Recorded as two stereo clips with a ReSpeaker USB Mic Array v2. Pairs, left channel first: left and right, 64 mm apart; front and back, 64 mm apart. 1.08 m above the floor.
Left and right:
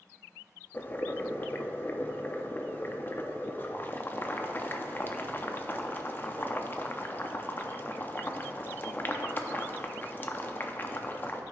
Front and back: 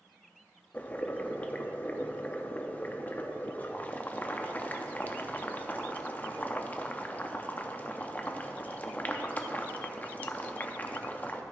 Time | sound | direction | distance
0.7 | boiling | 50° left | 0.6 m